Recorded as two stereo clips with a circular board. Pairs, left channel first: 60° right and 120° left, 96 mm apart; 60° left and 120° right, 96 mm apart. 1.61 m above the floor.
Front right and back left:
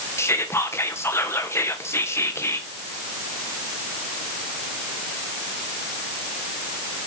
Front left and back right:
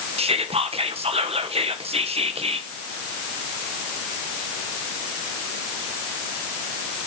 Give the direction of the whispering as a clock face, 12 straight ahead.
4 o'clock.